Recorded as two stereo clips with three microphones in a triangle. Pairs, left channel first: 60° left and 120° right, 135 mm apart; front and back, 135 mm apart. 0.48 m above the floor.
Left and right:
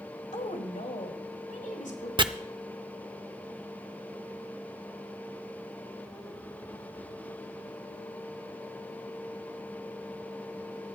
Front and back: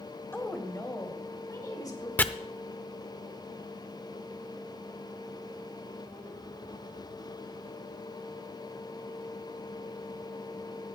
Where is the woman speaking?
70° left, 2 m; by 2.1 s 60° left, 4.5 m.